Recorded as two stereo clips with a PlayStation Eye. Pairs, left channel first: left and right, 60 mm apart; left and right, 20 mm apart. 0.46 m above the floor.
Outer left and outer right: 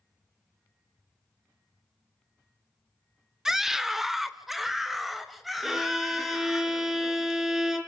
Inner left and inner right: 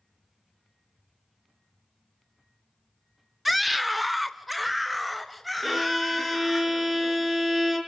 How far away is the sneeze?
No sneeze in this recording.